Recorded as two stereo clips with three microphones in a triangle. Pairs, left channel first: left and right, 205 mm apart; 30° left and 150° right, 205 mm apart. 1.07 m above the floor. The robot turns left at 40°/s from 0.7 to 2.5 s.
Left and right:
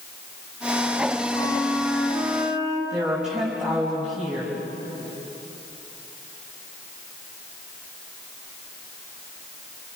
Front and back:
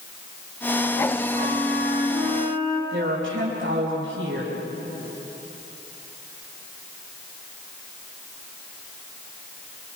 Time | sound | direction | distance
1.3 | a flute | 30° left | 5.5 m
2.9 | a woman speaking | straight behind | 6 m